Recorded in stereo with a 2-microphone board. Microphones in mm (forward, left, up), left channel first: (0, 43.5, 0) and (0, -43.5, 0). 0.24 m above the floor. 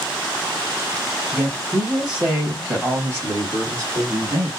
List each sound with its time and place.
1.3 s a woman speaking: 10° left (ahead or behind), 1.4 m; by 4.5 s 50° right (ahead or behind), 2 m